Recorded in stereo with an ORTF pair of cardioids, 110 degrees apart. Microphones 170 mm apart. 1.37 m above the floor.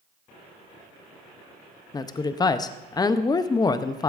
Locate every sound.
1.9 s a woman speaking: 25° left, 0.6 m